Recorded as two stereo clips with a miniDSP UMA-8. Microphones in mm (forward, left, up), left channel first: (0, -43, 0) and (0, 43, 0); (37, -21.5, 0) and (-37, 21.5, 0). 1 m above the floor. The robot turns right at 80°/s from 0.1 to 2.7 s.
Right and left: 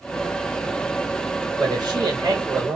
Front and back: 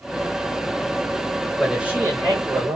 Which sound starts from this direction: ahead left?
A man speaking, at 1.6 s.